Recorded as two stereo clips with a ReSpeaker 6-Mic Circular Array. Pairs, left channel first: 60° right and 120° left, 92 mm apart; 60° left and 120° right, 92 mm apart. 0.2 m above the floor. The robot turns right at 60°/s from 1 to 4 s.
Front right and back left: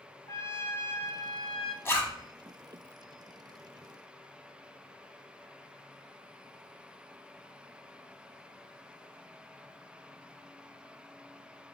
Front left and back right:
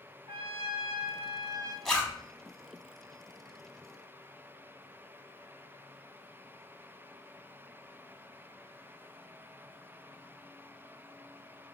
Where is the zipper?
25° right, 1.0 m; by 2.2 s 5° right, 1.0 m.